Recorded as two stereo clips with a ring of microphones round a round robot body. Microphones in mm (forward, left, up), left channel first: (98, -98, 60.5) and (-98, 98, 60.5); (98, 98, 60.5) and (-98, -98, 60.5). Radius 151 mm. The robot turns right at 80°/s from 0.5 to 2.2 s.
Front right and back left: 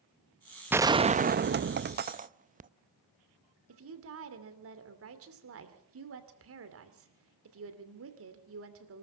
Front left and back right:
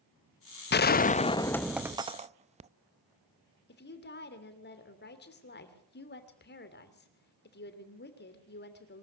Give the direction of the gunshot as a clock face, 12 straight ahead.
10 o'clock.